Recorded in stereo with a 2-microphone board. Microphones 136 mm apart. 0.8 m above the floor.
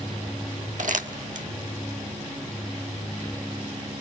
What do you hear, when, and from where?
0.8 s crumpling: 70° right (ahead or behind), 1.2 m